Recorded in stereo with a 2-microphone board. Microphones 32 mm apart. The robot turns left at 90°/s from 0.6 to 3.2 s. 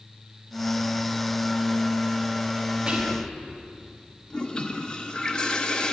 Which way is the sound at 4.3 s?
25° left (ahead or behind).